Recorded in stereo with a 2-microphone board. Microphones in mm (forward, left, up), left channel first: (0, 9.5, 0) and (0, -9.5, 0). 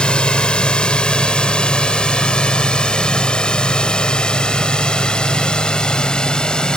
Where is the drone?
60° left (ahead or behind); by 6.8 s 50° left (ahead or behind).